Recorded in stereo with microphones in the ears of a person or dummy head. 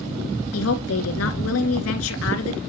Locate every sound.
0.5 s a woman speaking: 75° left (ahead or behind), 1.9 m